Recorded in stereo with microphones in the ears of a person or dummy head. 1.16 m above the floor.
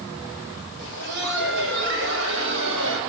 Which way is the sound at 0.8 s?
60° right (ahead or behind).